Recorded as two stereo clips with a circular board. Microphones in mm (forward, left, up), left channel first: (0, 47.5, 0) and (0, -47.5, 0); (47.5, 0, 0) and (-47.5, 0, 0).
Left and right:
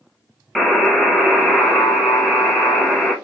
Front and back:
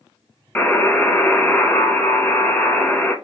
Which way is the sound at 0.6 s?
5° left.